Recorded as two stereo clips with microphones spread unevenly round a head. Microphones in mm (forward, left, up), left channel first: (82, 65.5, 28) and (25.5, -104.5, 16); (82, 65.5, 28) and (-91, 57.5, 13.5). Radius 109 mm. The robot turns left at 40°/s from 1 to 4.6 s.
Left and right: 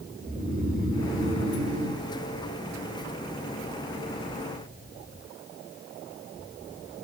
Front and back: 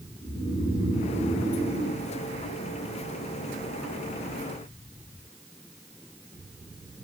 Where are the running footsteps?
I don't hear running footsteps.